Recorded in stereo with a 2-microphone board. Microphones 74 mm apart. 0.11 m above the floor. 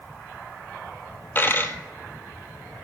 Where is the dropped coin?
30° left (ahead or behind), 0.9 m.